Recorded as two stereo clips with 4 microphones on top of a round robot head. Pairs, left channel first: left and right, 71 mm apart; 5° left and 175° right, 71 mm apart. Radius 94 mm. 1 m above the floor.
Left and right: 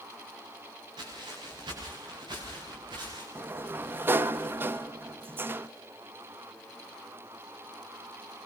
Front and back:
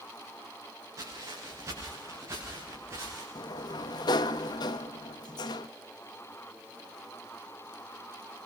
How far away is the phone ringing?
No phone ringing in this recording.